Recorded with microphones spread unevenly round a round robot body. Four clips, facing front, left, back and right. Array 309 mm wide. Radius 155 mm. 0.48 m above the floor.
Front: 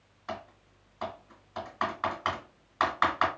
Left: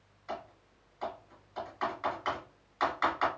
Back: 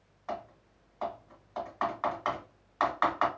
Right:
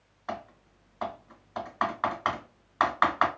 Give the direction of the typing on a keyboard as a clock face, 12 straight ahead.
2 o'clock.